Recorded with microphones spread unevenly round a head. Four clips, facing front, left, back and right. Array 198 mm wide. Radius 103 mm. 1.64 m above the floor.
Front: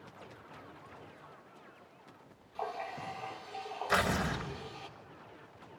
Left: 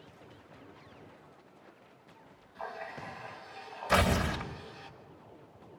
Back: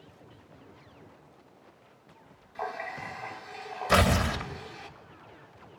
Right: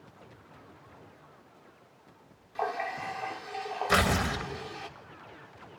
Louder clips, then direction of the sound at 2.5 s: Right 9 dB, back 3 dB; 100° right.